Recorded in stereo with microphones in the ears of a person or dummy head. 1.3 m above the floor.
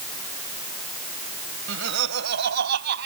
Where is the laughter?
75° right (ahead or behind); by 3.1 s 70° right (ahead or behind).